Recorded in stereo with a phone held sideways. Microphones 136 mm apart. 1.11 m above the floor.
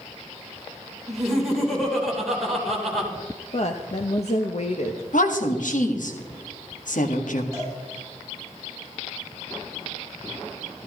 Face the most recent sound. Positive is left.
turn(degrees=-20)  # may be behind; listen again after turning